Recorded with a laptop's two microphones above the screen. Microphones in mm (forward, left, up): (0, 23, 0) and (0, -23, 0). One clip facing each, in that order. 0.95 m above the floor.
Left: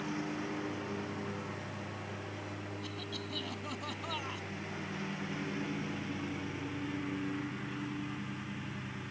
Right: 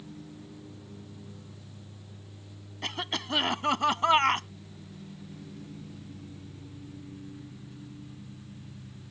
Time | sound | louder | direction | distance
0.0 | a lawn mower | left 9 dB | 85° left | ?
2.8 | a cough | right 7 dB | 80° right | ?